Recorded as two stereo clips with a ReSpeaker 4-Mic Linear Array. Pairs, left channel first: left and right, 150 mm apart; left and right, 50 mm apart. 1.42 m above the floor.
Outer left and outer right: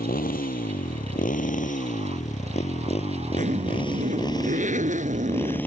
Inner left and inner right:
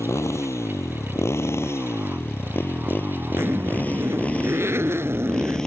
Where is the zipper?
55° right (ahead or behind).